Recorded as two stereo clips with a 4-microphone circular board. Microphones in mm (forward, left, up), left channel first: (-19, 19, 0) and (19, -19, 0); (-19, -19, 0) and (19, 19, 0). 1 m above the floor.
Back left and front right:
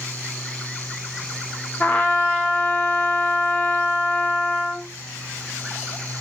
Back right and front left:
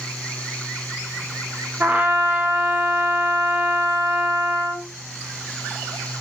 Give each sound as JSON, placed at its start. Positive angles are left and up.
{"t": 1.8, "sound": "a trumpet", "azimuth_deg": 85, "distance_m": 0.6}